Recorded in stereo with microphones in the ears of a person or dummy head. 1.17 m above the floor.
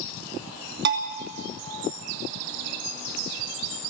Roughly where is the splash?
No splash in this recording.